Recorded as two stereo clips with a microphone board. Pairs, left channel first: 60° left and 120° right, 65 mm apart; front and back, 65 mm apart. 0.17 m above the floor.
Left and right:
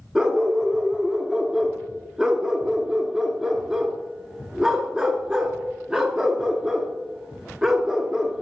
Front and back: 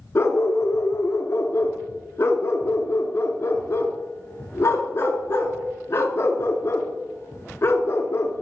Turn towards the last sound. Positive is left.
turn(degrees=-40)